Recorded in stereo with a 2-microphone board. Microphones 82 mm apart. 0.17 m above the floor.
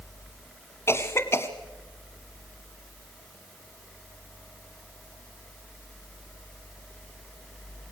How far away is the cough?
About 1.1 m.